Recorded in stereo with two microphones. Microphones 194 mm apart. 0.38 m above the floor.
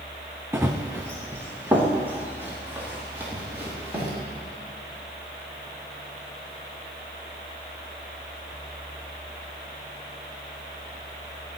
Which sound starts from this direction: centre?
Running footsteps, at 0.5 s.